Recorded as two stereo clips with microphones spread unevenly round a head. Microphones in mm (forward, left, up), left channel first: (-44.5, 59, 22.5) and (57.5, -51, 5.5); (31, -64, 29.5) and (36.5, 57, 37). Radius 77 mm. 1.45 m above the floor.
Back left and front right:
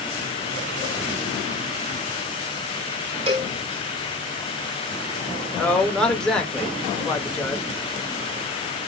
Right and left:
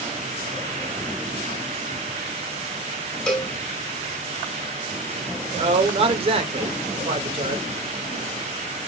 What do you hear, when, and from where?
3.3 s a cowbell: 5° right, 1.3 m
5.5 s a man speaking: 45° left, 1.0 m